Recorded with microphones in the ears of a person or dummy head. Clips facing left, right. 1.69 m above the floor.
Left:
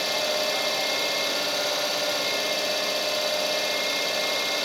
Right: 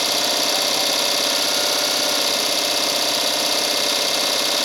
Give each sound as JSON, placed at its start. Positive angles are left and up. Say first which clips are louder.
{"t": 0.0, "sound": "an engine running", "louder": "right 2 dB", "side_deg": -70, "distance_m": 0.8}